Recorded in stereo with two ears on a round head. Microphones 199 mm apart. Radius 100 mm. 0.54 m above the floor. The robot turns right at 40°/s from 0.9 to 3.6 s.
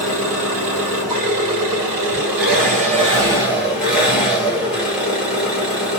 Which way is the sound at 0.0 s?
110° right.